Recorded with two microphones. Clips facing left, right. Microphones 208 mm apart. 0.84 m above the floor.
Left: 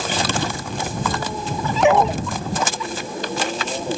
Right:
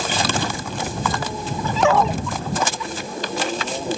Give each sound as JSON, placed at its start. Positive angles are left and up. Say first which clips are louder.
{"t": 1.8, "sound": "a dog barking", "louder": "left 2 dB", "side_deg": 20}